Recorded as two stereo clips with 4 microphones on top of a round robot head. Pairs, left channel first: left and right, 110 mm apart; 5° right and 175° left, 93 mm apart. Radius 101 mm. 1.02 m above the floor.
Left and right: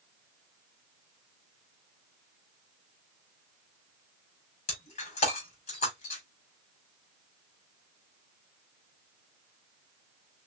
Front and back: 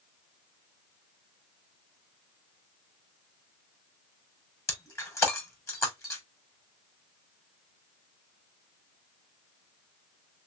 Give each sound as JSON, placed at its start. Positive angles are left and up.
{"t": 4.7, "sound": "breaking glass", "azimuth_deg": 55, "distance_m": 3.0}